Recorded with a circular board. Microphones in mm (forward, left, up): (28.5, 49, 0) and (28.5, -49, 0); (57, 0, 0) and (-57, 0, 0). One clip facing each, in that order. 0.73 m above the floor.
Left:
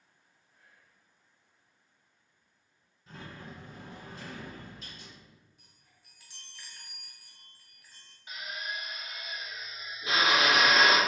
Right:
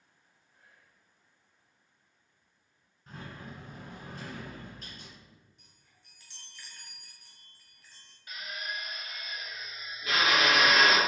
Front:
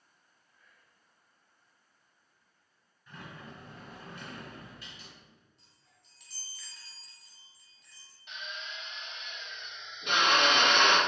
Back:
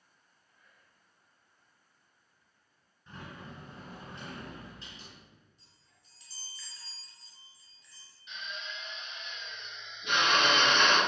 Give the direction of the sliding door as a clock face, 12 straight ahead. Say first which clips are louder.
Right 1 dB, back 1 dB; 4 o'clock.